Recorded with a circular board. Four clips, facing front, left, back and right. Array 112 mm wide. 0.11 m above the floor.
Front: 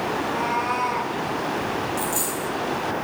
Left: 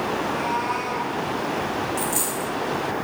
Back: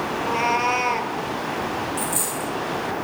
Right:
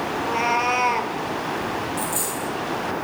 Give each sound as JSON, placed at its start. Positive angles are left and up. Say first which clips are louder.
{"t": 0.1, "sound": "a cat meowing", "louder": "right 2 dB, back 5 dB", "azimuth_deg": -150, "distance_m": 1.4}
{"t": 2.0, "sound": "a dropped coin", "louder": "left 1 dB, front 1 dB", "azimuth_deg": 100, "distance_m": 4.0}